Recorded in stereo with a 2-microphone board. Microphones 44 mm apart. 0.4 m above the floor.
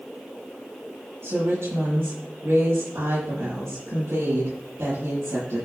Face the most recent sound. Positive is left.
turn(degrees=-70)  # may be behind; listen again after turning